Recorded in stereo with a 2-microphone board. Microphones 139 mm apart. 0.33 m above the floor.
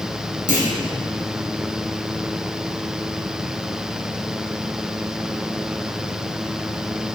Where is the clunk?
85° right, 2.5 m.